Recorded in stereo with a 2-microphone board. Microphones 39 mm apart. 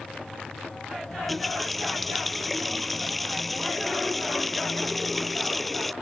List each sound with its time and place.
1.1 s a running tap: 5° left (ahead or behind)